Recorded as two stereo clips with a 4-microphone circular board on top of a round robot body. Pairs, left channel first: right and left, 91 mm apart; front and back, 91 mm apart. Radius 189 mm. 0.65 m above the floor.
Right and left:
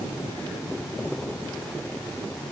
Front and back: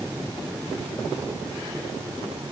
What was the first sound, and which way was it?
Only background noise.